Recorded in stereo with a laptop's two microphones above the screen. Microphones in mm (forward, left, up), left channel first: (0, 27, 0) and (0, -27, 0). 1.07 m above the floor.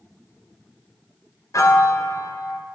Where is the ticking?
No ticking in this recording.